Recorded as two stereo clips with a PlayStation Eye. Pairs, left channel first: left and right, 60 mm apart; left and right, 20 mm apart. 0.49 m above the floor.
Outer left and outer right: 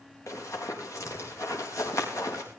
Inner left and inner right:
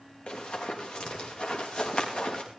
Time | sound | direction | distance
0.3 | running footsteps | 60° left (ahead or behind) | 6 m